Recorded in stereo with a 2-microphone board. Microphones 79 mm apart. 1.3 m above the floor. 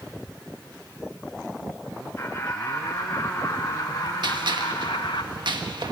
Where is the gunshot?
70° right (ahead or behind), 1.5 m.